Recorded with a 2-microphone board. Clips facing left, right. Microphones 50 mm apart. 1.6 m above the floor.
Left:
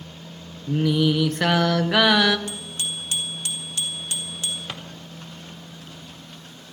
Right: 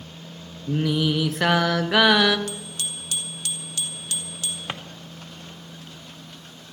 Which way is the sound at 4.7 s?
25° right (ahead or behind).